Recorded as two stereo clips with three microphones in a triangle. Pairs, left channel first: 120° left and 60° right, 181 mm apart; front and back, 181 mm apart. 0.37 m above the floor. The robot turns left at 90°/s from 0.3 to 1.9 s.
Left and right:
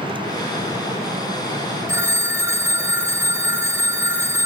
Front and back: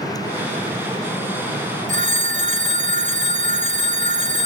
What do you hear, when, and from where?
1.9 s a phone ringing: 135° right, 1.9 m